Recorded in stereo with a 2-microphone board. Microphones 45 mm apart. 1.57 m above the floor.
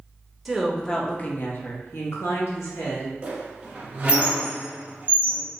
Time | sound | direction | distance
0.5 | a woman speaking | 5° right (ahead or behind) | 0.7 m
3.2 | a squeak | 30° right (ahead or behind) | 1.1 m